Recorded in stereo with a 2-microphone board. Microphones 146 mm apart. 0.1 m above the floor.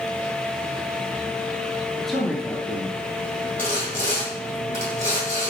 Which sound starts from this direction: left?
Sawing, at 3.6 s.